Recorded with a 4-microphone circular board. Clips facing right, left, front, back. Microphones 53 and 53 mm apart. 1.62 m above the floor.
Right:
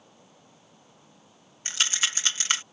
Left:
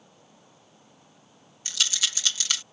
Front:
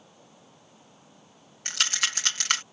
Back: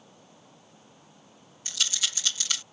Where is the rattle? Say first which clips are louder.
Right 2 dB, front 4 dB; 35° right.